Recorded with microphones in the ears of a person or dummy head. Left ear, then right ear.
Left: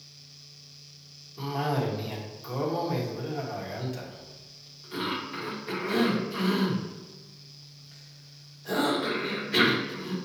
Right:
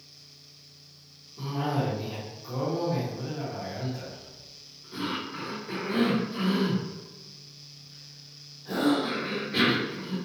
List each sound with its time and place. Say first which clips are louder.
1.4 s a cough: left 1 dB; 60° left (ahead or behind), 1.2 m